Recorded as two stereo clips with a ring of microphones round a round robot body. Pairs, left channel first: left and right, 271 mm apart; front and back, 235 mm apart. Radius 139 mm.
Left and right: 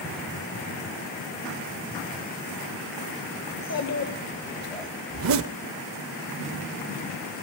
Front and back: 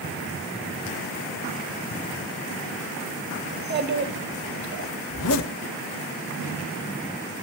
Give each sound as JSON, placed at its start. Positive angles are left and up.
{"t": 3.5, "sound": "a child speaking", "azimuth_deg": 130, "distance_m": 1.9}
{"t": 5.1, "sound": "a zipper", "azimuth_deg": -45, "distance_m": 0.5}